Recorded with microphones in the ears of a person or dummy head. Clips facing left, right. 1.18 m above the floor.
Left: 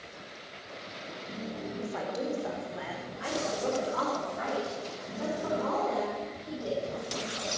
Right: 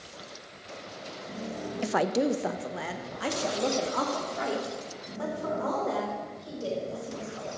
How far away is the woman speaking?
About 0.5 m.